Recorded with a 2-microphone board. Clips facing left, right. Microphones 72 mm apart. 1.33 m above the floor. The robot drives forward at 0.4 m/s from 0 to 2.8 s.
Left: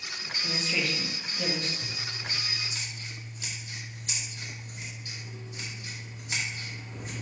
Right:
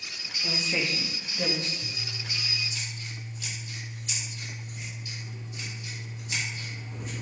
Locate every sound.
0.4 s a woman speaking: 20° right (ahead or behind), 2.5 m; by 1.7 s 25° right (ahead or behind), 1.8 m
1.8 s scissors: 50° left (ahead or behind), 2.5 m; by 7.1 s 45° left (ahead or behind), 3 m